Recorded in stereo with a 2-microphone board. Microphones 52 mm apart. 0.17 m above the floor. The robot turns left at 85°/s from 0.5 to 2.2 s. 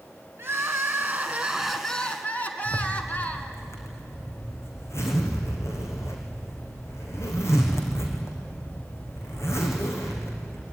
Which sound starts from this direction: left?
A zipper, at 2.6 s.